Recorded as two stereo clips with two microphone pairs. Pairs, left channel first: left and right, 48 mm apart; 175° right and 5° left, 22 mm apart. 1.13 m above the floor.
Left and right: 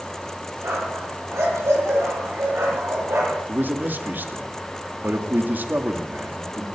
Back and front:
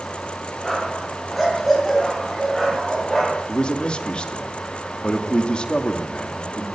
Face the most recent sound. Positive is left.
turn(degrees=-135)